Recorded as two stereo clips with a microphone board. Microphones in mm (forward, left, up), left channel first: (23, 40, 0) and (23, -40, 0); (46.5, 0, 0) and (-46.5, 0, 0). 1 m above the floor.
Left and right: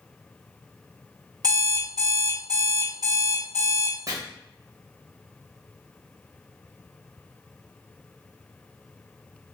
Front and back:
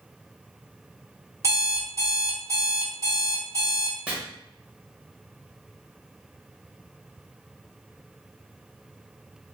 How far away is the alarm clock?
About 1.2 m.